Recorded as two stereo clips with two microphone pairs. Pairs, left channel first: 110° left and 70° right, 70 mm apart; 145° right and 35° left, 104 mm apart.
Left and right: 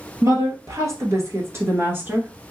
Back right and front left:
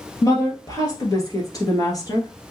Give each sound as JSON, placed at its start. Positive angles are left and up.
{"t": 0.2, "sound": "a woman speaking", "azimuth_deg": -90, "distance_m": 2.0}